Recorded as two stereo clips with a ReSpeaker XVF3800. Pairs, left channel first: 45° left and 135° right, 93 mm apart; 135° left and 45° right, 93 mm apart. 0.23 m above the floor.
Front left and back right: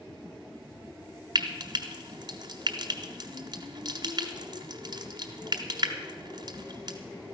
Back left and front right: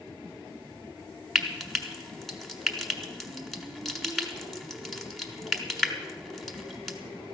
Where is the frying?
135° right, 1.2 m.